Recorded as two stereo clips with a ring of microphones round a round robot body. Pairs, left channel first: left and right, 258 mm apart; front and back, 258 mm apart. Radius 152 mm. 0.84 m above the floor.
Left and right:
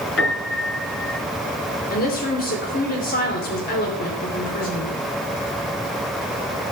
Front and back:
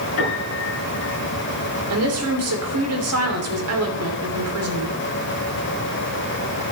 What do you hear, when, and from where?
0.2 s a piano: 45° left, 6.5 m
1.9 s a woman speaking: 150° left, 3 m